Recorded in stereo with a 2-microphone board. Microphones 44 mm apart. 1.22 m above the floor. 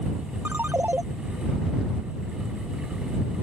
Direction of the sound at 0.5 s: 50° right (ahead or behind).